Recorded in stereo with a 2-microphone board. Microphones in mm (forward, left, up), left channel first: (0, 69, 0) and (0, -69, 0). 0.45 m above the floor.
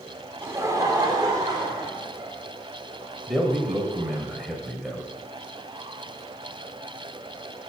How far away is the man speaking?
About 2 m.